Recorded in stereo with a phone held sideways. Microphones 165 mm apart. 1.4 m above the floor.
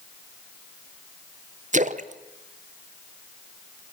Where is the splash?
50° right (ahead or behind), 0.8 m.